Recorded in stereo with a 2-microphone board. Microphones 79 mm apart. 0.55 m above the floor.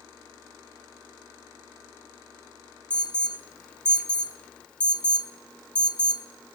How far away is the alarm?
About 1.1 m.